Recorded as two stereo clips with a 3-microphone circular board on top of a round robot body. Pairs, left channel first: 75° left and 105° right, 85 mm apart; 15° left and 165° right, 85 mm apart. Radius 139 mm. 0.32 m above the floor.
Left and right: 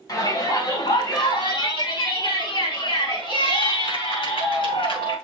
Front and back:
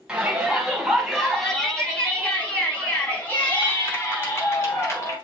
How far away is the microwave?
No microwave in this recording.